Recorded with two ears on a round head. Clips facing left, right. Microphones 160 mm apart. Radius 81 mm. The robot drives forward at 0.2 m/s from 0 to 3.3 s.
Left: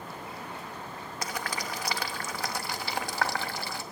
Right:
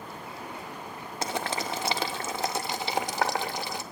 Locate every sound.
1.2 s boiling: 25° right (ahead or behind), 0.6 m; by 3.8 s 20° right (ahead or behind), 0.7 m